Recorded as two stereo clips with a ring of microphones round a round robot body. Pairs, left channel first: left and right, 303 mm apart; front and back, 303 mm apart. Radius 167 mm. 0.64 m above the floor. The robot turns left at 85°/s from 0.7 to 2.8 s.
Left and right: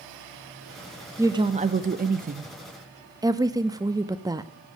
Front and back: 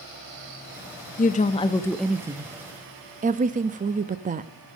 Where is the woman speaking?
15° right, 0.6 m; by 4.5 s 155° right, 0.6 m.